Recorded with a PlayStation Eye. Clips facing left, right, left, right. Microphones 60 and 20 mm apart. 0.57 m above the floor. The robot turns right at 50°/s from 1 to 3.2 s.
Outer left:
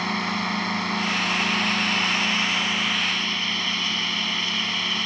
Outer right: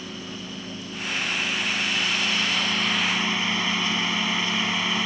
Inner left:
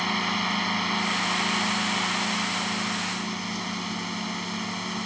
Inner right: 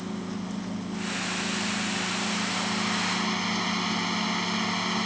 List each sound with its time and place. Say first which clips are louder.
0.0 s a drone: outer left 11 dB, inner left 9 dB; 85° left; by 5.1 s 165° right